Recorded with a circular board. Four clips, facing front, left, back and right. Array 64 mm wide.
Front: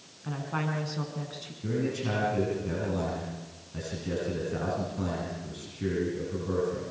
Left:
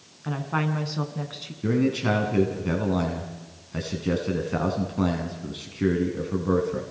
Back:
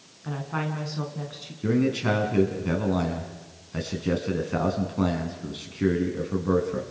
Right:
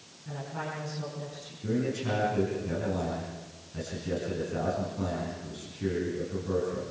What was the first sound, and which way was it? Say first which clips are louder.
A woman speaking: left 9 dB, back 2 dB; 95° left.